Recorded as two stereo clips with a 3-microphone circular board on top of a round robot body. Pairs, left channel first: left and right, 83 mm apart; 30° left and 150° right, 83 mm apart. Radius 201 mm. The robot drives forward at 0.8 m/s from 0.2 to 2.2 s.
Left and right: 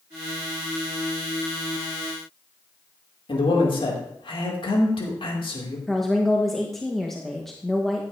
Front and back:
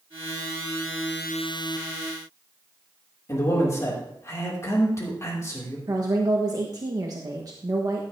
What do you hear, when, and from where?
3.3 s a man speaking: 85° left, 3 m
5.9 s a woman speaking: 175° left, 1.6 m